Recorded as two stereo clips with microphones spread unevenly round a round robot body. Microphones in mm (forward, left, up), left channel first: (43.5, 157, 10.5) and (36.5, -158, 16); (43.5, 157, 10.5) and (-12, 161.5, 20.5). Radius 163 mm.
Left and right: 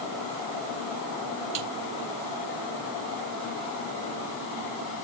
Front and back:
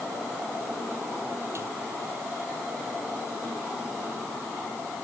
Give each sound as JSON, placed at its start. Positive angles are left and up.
{"t": 1.6, "sound": "a snare drum", "azimuth_deg": -105}